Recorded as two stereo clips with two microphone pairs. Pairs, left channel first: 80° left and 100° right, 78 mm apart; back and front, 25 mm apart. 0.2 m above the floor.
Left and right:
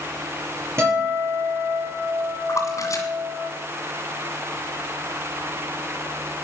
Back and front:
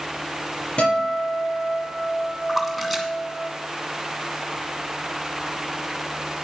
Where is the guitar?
150° right, 6.5 m.